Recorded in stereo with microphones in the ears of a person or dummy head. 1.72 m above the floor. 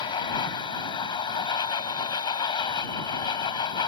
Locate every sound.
0.0 s a machine running: 30° left (ahead or behind)